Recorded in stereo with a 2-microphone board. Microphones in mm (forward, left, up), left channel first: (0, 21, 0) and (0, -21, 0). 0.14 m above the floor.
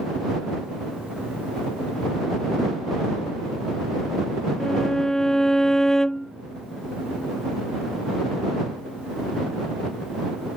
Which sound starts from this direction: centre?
A violin, at 4.6 s.